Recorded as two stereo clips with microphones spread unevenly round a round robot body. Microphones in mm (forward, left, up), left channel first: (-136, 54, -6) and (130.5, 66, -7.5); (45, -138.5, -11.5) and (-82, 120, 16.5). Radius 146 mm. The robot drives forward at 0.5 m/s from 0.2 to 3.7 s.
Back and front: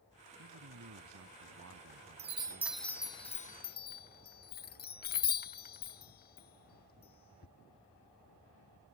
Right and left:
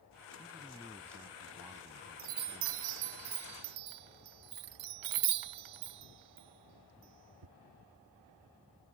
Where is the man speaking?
30° left; by 3.1 s 40° left.